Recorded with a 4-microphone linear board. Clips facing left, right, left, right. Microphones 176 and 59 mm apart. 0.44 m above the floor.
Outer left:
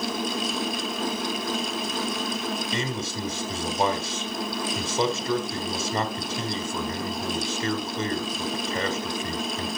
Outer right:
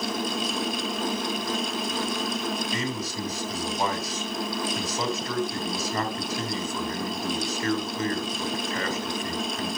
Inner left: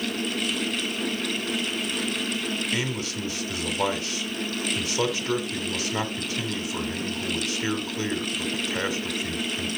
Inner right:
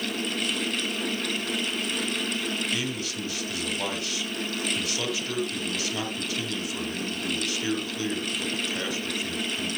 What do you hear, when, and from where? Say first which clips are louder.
2.7 s a man speaking: even, inner left 2 dB; 25° left (ahead or behind), 2.5 m